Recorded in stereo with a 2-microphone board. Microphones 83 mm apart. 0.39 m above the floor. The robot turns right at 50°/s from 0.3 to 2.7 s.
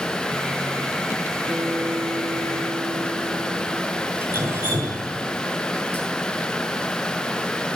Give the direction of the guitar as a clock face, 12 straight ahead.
5 o'clock.